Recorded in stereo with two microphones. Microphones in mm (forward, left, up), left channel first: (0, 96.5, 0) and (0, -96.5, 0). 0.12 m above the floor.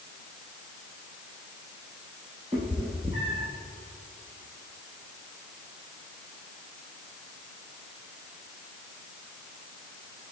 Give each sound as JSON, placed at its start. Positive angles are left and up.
{"t": 2.5, "sound": "a cat meowing", "side_deg": -30, "distance_m": 1.4}